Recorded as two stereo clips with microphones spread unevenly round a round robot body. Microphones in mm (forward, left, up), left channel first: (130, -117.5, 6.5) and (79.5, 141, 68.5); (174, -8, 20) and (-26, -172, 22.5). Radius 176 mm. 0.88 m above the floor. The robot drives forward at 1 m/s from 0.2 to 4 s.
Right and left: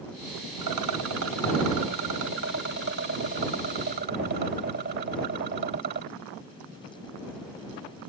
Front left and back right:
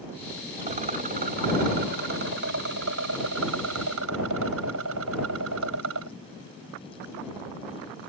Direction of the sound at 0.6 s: 150° left.